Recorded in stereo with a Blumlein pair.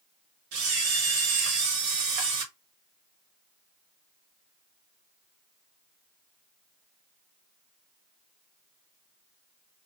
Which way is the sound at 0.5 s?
50° right.